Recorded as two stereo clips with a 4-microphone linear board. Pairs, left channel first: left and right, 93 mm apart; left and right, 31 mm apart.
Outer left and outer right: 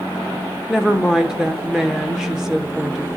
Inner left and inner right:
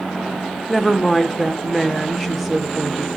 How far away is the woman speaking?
About 0.9 m.